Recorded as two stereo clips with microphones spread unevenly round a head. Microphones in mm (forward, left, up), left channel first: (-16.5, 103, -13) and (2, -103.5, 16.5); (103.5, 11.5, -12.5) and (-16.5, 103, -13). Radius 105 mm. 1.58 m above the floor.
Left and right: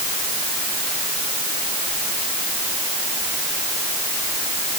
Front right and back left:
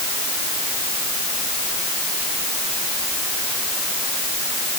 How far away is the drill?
I don't hear a drill.